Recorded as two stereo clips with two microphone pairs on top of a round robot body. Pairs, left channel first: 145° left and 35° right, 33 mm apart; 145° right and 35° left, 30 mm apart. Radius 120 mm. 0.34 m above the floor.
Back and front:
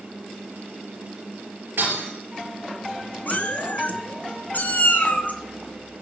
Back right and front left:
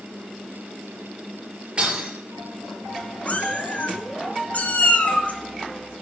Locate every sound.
1.8 s breaking glass: 20° right, 4.5 m
3.3 s a cat meowing: straight behind, 1.6 m